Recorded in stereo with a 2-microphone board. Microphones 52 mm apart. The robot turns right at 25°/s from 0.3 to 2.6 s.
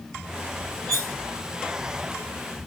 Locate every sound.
0.9 s cutlery clinking: 10° left (ahead or behind), 1.7 m; by 1.1 s 15° left (ahead or behind), 1.7 m